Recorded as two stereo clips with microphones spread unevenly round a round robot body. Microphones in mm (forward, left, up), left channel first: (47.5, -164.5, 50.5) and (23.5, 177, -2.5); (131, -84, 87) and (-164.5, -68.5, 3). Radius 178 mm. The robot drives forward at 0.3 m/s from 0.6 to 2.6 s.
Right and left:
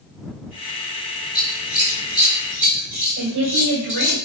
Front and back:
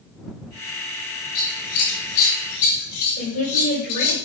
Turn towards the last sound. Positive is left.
turn(degrees=55)